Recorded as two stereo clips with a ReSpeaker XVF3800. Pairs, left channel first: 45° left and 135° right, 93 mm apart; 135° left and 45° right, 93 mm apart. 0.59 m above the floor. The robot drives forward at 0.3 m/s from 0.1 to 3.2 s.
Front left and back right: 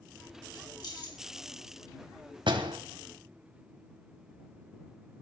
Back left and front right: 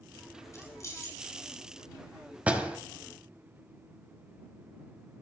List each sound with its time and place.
0.5 s keys jangling: 80° left, 4 m
2.5 s a door slam: 120° right, 3 m